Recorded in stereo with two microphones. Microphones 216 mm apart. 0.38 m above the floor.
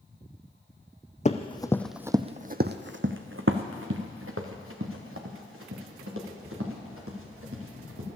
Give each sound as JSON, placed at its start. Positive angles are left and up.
{"t": 1.2, "sound": "running footsteps", "side_deg": 35, "distance_m": 0.8}